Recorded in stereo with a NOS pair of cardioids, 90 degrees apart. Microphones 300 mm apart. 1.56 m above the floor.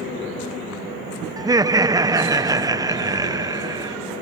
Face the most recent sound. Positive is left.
turn(degrees=-10)